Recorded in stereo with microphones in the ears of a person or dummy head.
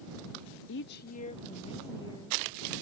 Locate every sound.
0.7 s a woman speaking: 70° left (ahead or behind); by 2.7 s 20° left (ahead or behind)